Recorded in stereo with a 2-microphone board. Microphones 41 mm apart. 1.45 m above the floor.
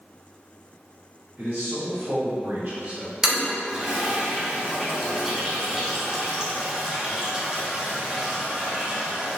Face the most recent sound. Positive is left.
turn(degrees=-15)  # may be behind; listen again after turning